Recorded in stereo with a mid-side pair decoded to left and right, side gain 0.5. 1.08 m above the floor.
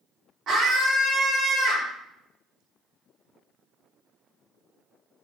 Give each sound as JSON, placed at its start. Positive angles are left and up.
{"t": 0.5, "sound": "a scream", "azimuth_deg": -45, "distance_m": 3.5}